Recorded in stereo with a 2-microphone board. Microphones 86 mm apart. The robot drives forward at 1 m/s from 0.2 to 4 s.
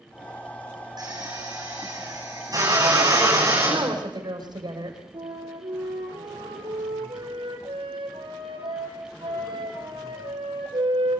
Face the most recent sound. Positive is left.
turn(degrees=-70)  # may be behind; listen again after turning